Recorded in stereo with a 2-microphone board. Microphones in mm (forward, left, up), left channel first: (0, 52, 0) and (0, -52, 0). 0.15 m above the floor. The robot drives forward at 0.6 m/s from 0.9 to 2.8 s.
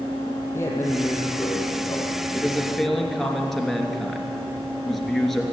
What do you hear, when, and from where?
0.5 s a man speaking: 25° left (ahead or behind), 5 m; by 2.9 s 20° left (ahead or behind), 6 m
2.3 s a man speaking: centre (ahead or behind), 3 m